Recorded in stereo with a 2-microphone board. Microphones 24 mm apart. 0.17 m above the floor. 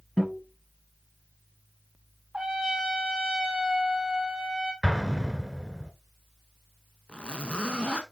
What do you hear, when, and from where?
0.2 s a guitar: 15° left (ahead or behind), 3.5 m
2.3 s a trumpet: 25° right (ahead or behind), 1.3 m
4.8 s an explosion: 5° right (ahead or behind), 0.9 m
7.1 s a zipper: 50° left (ahead or behind), 0.8 m